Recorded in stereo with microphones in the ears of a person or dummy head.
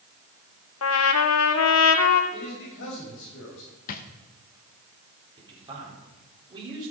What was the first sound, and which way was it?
A trumpet, 75° left (ahead or behind).